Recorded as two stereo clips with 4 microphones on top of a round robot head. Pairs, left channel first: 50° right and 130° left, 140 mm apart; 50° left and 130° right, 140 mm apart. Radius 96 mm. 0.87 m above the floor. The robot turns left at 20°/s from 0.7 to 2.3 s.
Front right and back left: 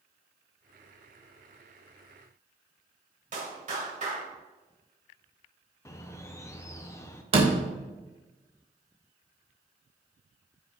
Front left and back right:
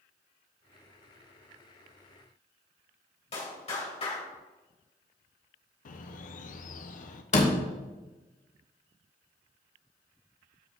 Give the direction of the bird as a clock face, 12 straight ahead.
11 o'clock.